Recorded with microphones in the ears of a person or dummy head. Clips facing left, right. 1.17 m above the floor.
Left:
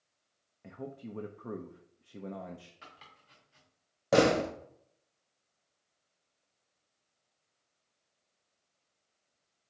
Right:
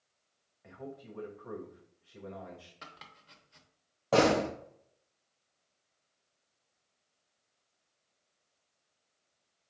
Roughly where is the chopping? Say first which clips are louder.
Right 3 dB; right.